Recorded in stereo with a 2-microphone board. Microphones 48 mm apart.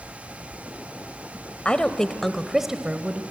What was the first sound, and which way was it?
A woman speaking, 25° left (ahead or behind).